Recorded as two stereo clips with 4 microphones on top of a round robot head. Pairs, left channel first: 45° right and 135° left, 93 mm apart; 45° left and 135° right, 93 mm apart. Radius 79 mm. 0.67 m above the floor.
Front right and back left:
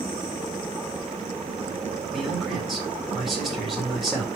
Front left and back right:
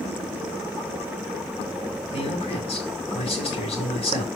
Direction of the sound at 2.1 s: 50° left.